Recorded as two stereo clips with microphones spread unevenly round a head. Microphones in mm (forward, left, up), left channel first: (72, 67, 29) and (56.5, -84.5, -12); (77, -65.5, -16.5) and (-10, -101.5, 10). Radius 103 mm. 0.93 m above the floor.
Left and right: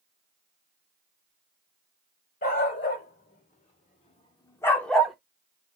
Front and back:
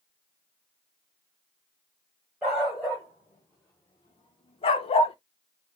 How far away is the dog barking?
About 1.4 m.